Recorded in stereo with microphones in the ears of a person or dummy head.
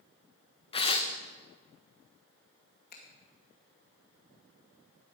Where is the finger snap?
50° left (ahead or behind), 2 m.